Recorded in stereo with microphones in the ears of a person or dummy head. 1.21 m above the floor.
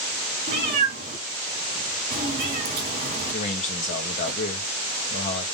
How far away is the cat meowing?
About 1.9 m.